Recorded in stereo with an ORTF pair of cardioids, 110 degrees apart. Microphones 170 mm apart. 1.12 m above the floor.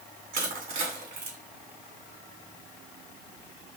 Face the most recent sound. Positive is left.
turn(degrees=-55)